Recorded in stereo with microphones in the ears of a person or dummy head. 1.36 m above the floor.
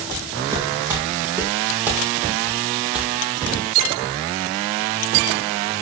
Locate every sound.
0.1 s footsteps: 20° right (ahead or behind), 4.5 m; by 3.6 s centre (ahead or behind), 2.5 m